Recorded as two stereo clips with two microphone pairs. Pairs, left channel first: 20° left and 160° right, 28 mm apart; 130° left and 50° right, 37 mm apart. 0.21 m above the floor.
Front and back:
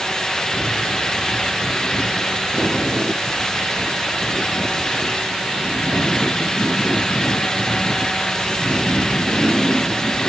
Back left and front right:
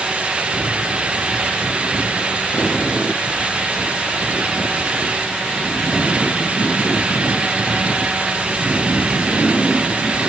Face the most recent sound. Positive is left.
No sound to turn to.